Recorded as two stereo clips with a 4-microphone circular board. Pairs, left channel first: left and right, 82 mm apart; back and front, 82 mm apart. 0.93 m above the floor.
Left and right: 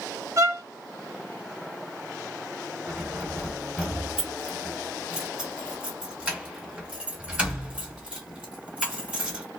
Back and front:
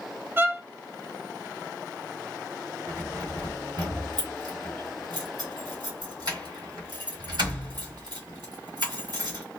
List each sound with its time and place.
0.4 s a violin: 55° right, 0.7 m
2.9 s keys jangling: 15° right, 2 m